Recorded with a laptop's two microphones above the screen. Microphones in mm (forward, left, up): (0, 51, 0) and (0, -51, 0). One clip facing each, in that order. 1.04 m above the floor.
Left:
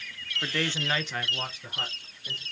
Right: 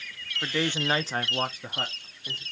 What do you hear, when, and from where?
0.4 s a man speaking: 5° right (ahead or behind), 0.7 m; by 2.4 s 35° right (ahead or behind), 1.1 m